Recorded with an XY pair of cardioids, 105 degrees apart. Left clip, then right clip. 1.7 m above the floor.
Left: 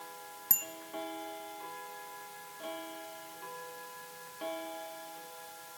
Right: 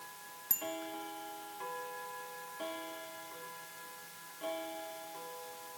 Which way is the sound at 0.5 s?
35° left.